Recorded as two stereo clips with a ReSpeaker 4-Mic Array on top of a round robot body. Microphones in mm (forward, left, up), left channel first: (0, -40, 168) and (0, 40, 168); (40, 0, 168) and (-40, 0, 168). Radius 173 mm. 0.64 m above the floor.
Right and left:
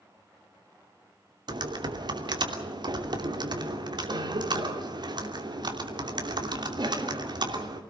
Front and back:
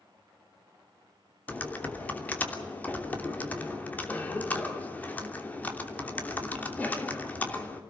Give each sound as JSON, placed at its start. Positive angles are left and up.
{"t": 1.5, "sound": "typing on a keyboard", "azimuth_deg": 70, "distance_m": 3.0}